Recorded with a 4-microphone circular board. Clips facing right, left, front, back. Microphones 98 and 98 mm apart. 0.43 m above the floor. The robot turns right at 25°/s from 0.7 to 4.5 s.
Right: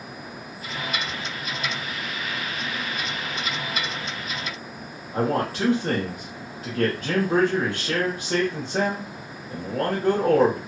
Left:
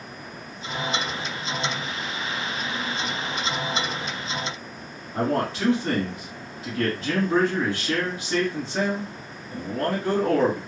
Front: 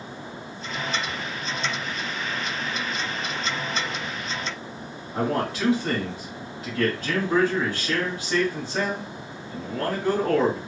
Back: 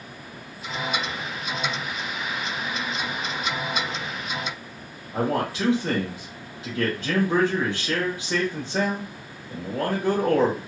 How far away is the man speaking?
About 1.3 m.